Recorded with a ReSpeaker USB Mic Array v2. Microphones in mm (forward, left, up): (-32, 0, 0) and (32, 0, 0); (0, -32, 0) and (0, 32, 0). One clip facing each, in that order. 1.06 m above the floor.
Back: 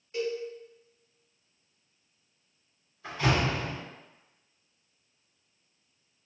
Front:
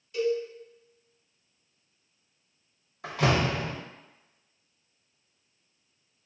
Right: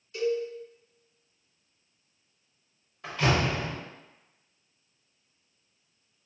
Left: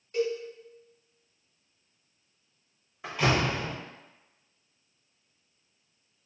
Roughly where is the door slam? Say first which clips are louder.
Front 2 dB, even; ahead.